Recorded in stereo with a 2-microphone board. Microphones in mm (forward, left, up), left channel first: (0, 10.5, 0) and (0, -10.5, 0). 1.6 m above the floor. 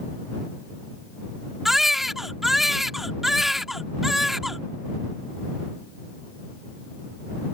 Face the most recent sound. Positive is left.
turn(degrees=-10)  # may be behind; listen again after turning